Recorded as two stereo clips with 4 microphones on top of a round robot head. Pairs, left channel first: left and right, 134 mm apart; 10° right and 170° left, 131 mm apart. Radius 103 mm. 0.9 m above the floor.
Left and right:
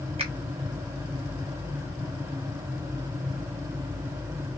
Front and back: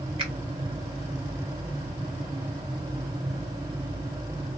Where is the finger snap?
135° right, 2 m.